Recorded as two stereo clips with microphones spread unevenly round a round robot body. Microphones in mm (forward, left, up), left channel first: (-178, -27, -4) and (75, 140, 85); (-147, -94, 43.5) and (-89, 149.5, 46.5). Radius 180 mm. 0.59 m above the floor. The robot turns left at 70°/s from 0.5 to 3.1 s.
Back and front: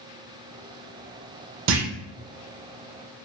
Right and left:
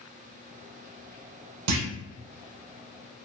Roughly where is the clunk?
Left.